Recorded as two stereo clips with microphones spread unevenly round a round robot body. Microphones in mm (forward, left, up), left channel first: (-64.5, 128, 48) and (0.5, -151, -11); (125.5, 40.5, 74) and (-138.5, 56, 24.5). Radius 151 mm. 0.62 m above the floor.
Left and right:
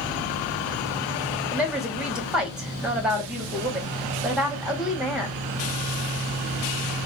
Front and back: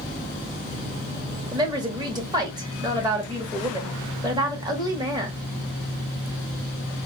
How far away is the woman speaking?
About 1.2 m.